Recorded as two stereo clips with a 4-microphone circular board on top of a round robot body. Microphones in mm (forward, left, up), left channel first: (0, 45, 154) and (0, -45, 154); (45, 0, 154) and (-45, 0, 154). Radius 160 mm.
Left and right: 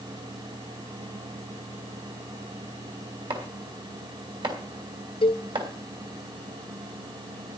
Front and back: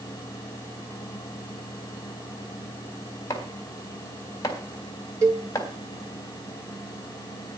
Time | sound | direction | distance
3.3 | chopping | 55° right | 3.5 m
5.2 | a cowbell | 115° left | 1.9 m